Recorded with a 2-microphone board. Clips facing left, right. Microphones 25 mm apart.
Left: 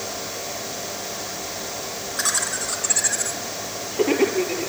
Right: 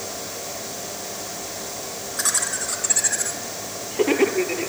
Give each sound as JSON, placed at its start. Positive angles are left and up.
{"t": 2.2, "sound": "laughter", "side_deg": 15, "distance_m": 3.5}